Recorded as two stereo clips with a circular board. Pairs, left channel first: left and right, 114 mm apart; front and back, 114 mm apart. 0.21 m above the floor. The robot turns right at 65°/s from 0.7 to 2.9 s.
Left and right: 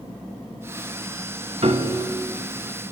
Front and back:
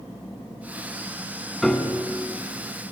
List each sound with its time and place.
1.6 s a piano: 90° right, 0.6 m; by 2.1 s 60° right, 0.6 m